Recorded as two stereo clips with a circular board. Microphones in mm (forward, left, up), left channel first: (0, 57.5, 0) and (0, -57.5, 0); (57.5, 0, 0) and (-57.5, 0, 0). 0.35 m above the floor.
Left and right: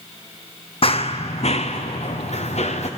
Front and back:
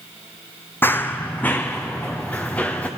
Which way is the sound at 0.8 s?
70° left.